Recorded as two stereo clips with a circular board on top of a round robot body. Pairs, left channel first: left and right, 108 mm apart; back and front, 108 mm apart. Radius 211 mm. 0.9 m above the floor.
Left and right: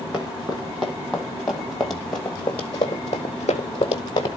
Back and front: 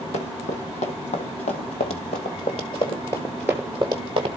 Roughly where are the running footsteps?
Behind.